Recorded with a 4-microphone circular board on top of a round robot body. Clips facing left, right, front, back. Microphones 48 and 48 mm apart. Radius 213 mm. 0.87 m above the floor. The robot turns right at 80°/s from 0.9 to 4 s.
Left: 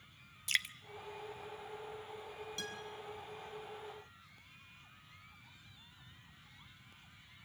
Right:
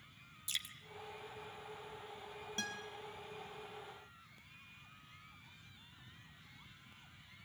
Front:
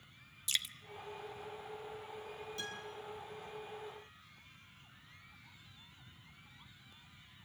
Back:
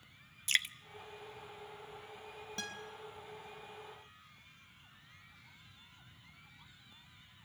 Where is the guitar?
145° right, 4.5 m; by 2.8 s 125° right, 4.5 m.